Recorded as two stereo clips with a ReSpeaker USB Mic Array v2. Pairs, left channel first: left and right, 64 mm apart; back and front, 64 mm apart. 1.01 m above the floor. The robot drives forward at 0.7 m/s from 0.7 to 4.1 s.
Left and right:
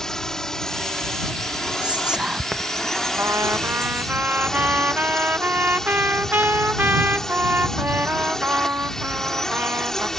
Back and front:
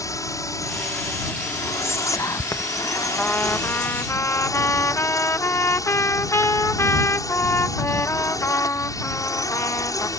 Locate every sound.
0.0 s a drone: 170° left
1.8 s whispering: 160° right; by 4.2 s 175° right
3.2 s a trumpet: 120° right; by 10.1 s 145° right